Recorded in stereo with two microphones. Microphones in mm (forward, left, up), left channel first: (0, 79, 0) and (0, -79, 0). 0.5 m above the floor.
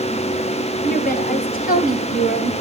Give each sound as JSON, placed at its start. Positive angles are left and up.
{"t": 0.8, "sound": "a woman speaking", "side_deg": 70, "distance_m": 3.0}